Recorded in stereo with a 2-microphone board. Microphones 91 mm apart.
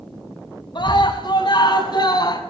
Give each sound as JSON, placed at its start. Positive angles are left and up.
{"t": 0.8, "sound": "a scream", "side_deg": 60, "distance_m": 7.0}